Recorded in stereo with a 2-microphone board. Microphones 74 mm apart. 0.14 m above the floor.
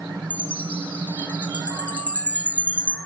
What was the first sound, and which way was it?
A chime, 20° left (ahead or behind).